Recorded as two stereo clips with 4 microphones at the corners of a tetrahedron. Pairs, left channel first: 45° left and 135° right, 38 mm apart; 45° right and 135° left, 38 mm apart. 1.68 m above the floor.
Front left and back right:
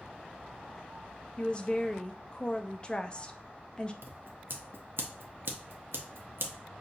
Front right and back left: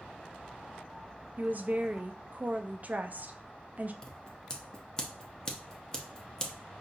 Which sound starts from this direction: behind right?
Scissors, at 4.0 s.